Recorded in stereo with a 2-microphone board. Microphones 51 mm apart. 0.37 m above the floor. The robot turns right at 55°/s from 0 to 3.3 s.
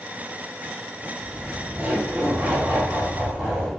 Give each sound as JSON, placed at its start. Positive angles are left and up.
{"t": 1.2, "sound": "laughter", "azimuth_deg": -155, "distance_m": 1.8}